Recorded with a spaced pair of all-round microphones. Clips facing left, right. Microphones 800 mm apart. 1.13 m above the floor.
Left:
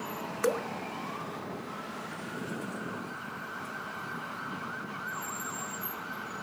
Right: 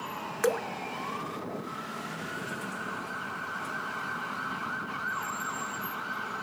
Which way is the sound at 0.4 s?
30° right (ahead or behind).